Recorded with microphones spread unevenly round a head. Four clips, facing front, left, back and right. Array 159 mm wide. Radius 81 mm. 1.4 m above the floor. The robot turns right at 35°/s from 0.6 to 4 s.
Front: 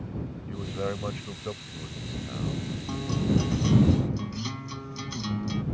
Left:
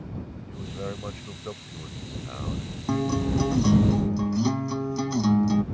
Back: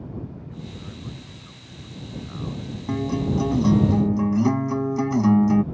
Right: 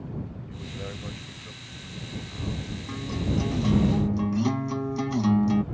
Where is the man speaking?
5° left; by 2.8 s 80° left.